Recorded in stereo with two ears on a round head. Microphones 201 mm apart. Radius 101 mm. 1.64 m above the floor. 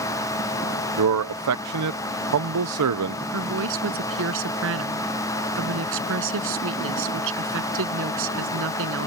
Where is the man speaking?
80° right.